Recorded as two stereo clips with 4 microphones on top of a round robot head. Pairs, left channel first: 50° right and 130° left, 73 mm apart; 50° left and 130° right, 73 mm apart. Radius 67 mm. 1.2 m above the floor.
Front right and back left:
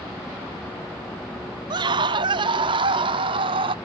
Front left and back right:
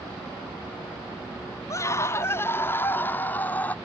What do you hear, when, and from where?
1.7 s a scream: 105° left; by 3.8 s 120° left